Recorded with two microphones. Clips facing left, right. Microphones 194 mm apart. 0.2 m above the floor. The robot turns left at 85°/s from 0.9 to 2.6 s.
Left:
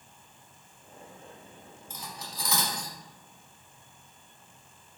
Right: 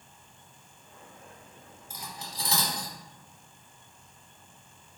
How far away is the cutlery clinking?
About 0.8 m.